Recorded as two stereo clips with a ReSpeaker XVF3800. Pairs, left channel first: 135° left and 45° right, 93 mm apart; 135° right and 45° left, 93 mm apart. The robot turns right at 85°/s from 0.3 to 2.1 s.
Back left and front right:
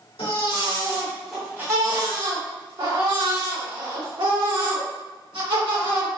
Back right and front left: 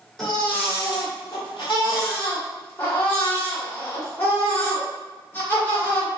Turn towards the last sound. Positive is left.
turn(degrees=-70)